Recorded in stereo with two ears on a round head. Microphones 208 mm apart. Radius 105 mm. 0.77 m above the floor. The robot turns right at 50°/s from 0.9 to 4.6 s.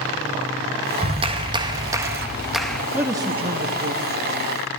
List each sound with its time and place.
1.0 s a clap: 25° right (ahead or behind), 0.5 m; by 2.8 s 5° left (ahead or behind), 0.5 m
2.9 s a man speaking: 5° right (ahead or behind), 0.7 m; by 4.8 s 55° right (ahead or behind), 0.7 m